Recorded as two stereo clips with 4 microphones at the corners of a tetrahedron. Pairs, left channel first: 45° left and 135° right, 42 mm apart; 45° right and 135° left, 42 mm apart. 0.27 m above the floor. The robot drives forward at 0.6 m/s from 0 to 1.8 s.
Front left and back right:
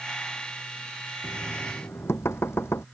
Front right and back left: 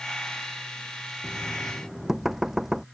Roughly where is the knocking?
Ahead left.